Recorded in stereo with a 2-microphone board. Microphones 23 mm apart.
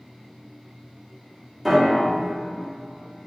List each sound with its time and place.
1.6 s a piano: centre (ahead or behind), 0.8 m